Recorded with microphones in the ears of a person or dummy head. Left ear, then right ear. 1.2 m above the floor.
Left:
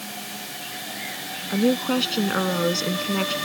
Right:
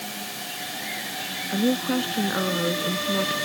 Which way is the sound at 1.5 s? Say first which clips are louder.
Left 3 dB; 85° left.